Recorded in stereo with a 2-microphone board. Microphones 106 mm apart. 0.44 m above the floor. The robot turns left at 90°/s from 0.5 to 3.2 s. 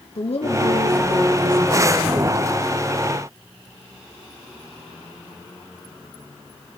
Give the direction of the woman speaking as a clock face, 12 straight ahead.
9 o'clock.